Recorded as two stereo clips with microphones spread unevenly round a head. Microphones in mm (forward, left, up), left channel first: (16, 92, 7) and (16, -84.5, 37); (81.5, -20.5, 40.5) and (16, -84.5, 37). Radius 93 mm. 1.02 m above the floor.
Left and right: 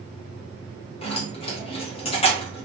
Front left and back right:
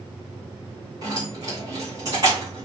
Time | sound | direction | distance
1.0 | keys jangling | 155° left | 0.8 m